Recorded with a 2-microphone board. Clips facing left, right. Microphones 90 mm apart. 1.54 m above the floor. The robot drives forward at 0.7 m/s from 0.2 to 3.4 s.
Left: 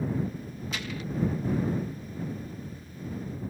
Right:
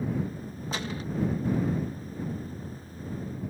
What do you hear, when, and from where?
0.7 s a gunshot: 35° right (ahead or behind)